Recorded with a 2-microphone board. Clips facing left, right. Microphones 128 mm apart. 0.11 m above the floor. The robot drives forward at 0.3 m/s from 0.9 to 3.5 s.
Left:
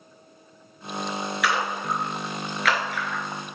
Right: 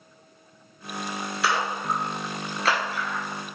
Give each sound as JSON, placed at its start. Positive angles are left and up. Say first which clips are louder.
{"t": 1.4, "sound": "a splash", "louder": "right 1 dB", "side_deg": -30, "distance_m": 0.6}